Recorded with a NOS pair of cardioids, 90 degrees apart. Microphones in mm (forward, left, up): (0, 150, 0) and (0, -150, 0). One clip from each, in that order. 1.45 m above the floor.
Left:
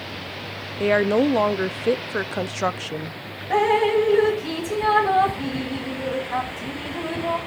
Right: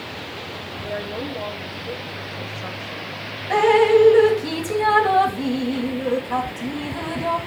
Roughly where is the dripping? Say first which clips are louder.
Right 4 dB; ahead right.